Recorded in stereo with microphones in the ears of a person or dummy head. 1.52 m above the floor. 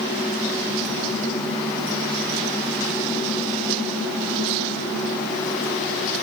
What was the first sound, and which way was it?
Only background noise.